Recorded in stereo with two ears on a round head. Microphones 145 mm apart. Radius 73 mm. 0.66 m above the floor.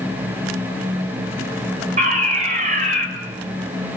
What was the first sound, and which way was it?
A fire alarm, 50° right (ahead or behind).